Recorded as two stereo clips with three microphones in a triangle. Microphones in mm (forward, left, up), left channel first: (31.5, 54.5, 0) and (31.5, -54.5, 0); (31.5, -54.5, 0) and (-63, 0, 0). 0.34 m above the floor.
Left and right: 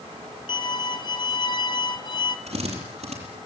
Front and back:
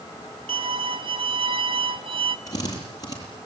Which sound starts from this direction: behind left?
A violin, at 0.5 s.